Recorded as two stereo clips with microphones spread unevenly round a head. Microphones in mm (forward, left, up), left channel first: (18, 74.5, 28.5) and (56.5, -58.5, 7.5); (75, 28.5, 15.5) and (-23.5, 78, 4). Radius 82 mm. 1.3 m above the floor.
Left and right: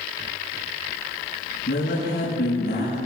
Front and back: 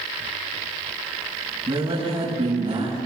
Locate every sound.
1.7 s a woman speaking: 120° left, 7.5 m